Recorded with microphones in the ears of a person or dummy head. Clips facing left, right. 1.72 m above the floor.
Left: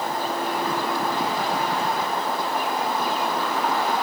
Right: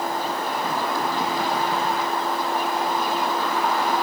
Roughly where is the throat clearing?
No throat clearing in this recording.